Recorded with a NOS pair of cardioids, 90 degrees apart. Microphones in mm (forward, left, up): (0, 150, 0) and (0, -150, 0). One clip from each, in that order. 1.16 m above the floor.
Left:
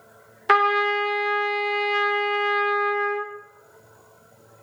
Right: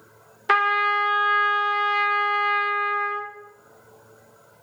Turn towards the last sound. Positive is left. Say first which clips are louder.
# left 1 dB
turn(degrees=5)